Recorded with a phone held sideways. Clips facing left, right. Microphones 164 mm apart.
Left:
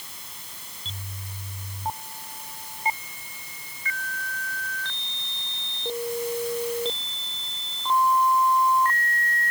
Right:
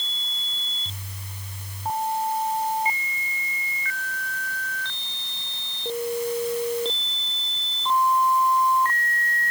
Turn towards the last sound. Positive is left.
No sound to turn to.